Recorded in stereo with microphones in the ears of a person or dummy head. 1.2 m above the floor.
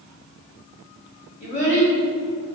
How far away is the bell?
No bell in this recording.